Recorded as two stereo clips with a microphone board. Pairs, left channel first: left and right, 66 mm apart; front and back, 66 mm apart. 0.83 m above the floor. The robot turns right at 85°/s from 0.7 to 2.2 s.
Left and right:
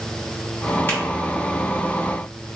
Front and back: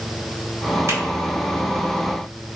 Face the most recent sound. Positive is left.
turn(degrees=-105)